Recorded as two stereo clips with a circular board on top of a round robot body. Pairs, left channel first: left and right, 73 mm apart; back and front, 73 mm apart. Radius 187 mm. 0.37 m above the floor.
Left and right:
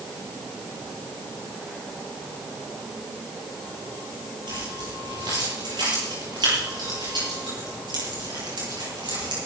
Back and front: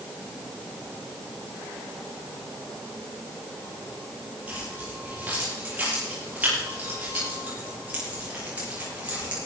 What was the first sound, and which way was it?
Keys jangling, 70° right.